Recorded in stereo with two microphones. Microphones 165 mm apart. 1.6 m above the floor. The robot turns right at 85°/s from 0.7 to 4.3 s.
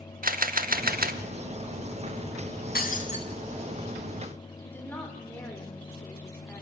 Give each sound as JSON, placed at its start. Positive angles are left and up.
{"t": 0.2, "sound": "a camera shutter", "azimuth_deg": -110, "distance_m": 1.4}
{"t": 2.8, "sound": "breaking glass", "azimuth_deg": 100, "distance_m": 3.0}
{"t": 4.6, "sound": "a woman speaking", "side_deg": 10, "distance_m": 6.5}